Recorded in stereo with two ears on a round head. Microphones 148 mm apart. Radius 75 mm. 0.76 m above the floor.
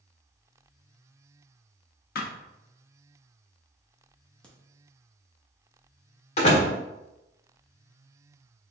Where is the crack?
5° left (ahead or behind), 0.9 m.